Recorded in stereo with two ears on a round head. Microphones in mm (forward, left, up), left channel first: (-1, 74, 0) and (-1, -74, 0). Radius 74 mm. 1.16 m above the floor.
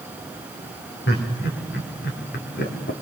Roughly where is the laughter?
Left.